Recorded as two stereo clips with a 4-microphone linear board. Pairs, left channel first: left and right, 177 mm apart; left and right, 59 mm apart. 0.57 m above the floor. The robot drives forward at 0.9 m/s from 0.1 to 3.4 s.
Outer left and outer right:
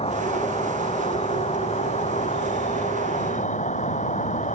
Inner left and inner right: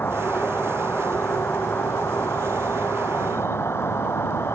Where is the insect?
35° left (ahead or behind); by 4.5 s 45° left (ahead or behind).